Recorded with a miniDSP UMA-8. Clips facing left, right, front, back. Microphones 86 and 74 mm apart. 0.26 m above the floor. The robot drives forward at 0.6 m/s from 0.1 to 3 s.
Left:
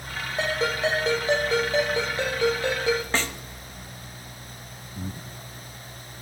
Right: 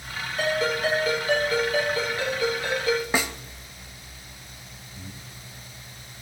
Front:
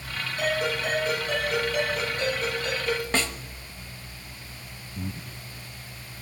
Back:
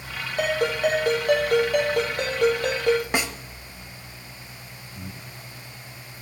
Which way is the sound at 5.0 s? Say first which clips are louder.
Left 8 dB, front 5 dB; 55° left.